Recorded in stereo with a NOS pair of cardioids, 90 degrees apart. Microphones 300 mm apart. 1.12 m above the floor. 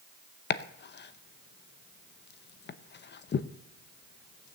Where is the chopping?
35° left, 0.7 m.